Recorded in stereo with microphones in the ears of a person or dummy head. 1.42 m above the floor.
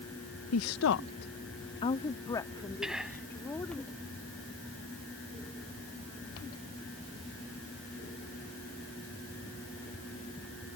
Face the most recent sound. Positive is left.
turn(degrees=0)  # may be behind; listen again after turning